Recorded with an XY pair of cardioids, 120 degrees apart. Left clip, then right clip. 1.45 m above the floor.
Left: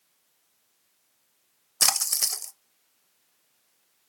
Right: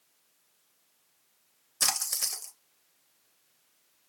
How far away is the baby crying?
I don't hear a baby crying.